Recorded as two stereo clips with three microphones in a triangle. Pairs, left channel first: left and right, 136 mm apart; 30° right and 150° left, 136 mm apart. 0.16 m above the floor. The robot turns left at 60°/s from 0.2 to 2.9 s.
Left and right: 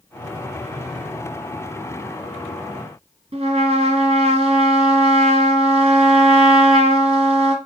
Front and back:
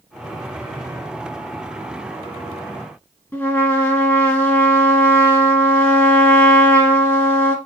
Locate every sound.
3.3 s a trumpet: 100° right, 2 m